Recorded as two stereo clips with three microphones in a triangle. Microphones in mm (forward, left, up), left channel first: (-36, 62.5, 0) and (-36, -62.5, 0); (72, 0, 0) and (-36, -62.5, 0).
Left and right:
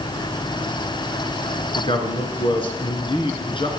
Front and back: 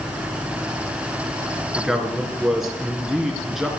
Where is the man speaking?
125° left, 2.5 m.